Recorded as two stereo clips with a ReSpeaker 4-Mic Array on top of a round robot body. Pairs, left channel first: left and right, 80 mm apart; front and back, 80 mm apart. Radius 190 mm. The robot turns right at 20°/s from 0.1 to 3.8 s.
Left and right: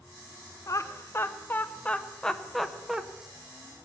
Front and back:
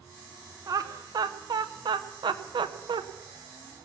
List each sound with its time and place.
0.7 s laughter: 140° left, 0.8 m; by 3.0 s 175° right, 0.8 m